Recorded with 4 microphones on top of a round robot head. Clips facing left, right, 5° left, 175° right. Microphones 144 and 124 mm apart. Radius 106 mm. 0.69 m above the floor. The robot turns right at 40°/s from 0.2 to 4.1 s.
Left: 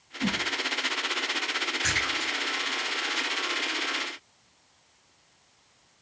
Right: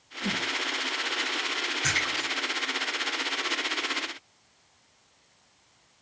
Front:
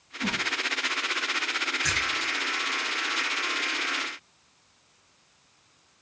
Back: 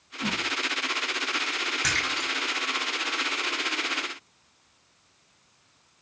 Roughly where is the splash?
Behind.